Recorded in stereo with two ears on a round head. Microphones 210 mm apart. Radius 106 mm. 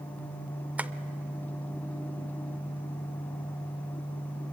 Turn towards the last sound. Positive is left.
turn(degrees=-5)  # may be behind; listen again after turning